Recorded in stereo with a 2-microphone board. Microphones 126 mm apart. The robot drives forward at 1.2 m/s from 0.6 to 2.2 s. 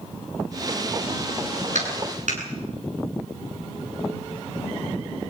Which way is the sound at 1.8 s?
80° right.